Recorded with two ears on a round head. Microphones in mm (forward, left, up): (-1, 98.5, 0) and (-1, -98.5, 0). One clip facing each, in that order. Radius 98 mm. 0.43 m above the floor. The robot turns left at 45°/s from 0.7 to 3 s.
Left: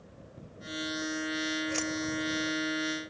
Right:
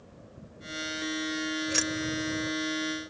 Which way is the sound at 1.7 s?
20° right (ahead or behind).